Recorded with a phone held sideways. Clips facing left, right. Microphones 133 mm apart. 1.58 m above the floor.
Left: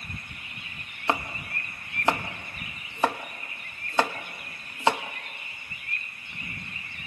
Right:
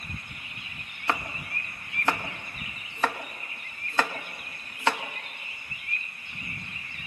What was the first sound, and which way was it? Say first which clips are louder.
Chopping: left 2 dB; 20° left (ahead or behind).